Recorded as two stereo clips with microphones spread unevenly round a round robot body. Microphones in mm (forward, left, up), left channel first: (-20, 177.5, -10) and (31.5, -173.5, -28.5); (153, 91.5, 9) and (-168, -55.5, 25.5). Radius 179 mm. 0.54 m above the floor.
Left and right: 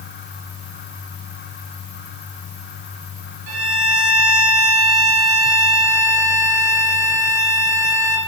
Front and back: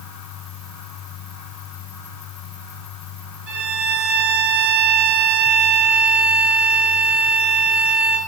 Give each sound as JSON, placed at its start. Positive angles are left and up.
{"t": 3.5, "sound": "a violin", "azimuth_deg": -95, "distance_m": 4.0}